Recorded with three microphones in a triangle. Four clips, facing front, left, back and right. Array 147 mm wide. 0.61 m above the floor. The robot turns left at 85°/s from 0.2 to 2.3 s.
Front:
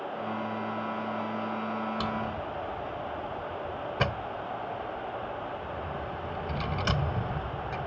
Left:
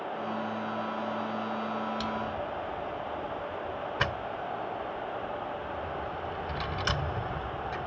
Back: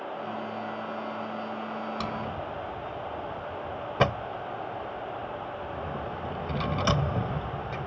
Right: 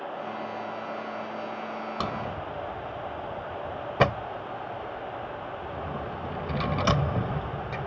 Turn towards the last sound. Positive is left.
turn(degrees=-125)